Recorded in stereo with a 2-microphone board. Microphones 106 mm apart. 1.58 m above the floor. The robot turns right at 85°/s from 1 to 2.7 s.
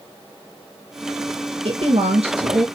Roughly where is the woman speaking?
Behind right.